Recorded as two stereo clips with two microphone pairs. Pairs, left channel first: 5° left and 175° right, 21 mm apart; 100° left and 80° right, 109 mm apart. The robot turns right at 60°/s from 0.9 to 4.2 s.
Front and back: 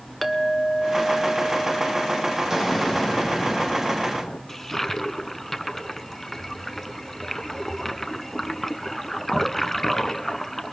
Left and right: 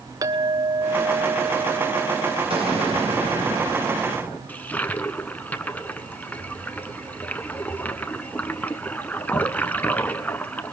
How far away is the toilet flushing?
About 1.0 m.